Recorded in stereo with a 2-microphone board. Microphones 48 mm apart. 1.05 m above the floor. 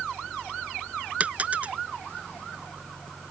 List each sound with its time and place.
1.2 s a dropped coin: 30° right (ahead or behind)